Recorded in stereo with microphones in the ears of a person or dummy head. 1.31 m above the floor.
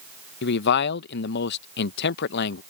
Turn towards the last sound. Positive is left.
turn(degrees=50)  # may be behind; listen again after turning